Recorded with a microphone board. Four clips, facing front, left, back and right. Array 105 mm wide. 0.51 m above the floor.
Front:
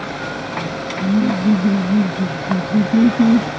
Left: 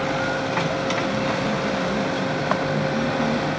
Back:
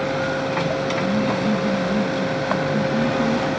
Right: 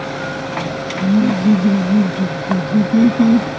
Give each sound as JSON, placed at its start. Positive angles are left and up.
{"t": 1.0, "sound": "laughter", "azimuth_deg": -65}